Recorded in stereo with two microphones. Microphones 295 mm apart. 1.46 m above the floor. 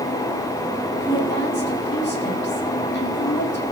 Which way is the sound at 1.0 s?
40° left (ahead or behind).